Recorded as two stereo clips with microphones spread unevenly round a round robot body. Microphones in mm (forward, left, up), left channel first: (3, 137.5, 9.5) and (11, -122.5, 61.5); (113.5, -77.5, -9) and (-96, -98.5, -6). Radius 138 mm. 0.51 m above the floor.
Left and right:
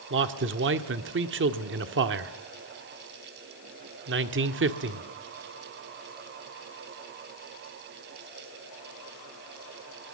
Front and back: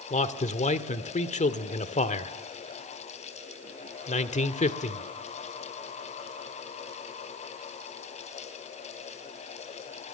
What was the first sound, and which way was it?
A man speaking, 45° right.